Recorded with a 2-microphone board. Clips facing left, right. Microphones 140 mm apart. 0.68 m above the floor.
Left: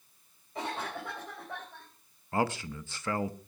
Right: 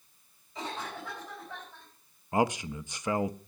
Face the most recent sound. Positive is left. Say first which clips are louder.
# right 3 dB
turn(degrees=-15)  # may be behind; listen again after turning